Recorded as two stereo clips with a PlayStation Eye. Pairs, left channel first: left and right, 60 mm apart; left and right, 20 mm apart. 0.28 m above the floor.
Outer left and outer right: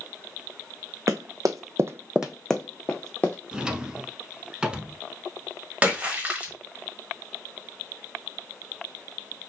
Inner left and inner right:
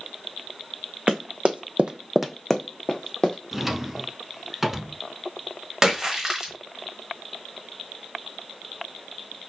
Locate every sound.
1.1 s running footsteps: 65° right (ahead or behind), 1.1 m; by 3.4 s 30° left (ahead or behind), 1.6 m
3.5 s a drawer: 15° right (ahead or behind), 0.6 m
5.8 s a splash: 25° right (ahead or behind), 1.0 m